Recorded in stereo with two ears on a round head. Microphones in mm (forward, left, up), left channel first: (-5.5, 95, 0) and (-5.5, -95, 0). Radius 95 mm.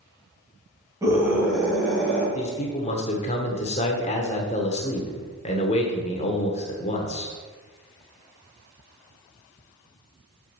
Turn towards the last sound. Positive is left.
turn(degrees=35)  # may be behind; listen again after turning